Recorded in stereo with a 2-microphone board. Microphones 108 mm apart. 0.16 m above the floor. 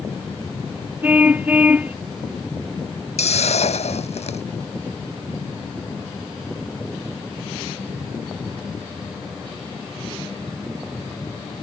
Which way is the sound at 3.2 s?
80° left.